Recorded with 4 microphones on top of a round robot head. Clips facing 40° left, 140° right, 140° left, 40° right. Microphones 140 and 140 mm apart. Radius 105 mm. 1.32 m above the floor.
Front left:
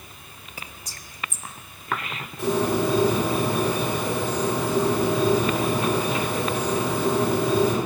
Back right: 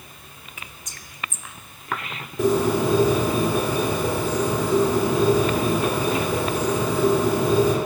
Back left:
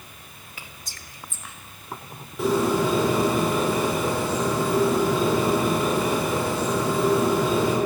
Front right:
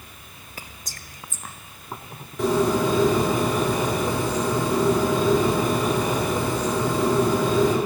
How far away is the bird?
About 2 m.